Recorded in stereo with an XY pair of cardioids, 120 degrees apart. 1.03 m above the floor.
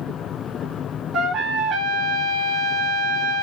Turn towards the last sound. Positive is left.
turn(degrees=-65)